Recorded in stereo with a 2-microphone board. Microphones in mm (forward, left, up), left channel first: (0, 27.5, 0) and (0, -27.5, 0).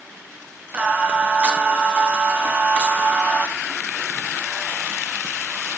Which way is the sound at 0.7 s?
20° right (ahead or behind).